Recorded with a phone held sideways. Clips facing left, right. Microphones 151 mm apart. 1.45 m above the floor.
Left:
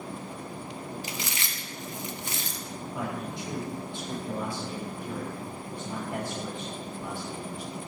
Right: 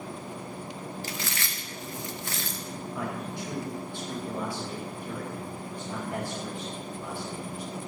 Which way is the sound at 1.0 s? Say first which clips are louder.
Right 1 dB; 20° left (ahead or behind).